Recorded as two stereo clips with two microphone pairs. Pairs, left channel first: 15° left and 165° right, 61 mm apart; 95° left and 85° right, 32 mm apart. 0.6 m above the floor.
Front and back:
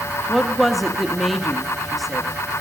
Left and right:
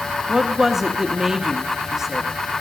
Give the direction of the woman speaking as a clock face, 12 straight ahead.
2 o'clock.